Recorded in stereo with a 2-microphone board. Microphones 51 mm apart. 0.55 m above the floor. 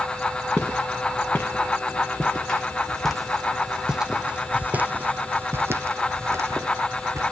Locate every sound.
0.6 s footsteps: 30° left (ahead or behind), 2.5 m; by 7.3 s 75° right (ahead or behind), 1.8 m